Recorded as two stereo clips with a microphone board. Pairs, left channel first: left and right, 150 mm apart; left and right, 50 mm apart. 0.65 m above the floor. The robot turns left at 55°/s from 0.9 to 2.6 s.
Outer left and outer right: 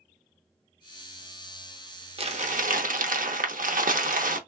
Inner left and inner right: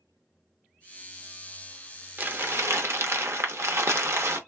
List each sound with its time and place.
2.2 s crumpling: 40° right (ahead or behind), 0.6 m; by 4.4 s 65° right (ahead or behind), 0.6 m